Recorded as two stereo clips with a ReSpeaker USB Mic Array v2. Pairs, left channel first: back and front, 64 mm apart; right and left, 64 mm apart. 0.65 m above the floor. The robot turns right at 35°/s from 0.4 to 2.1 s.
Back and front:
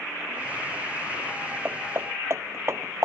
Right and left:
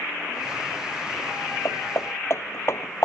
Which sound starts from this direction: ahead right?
Hammering, at 1.6 s.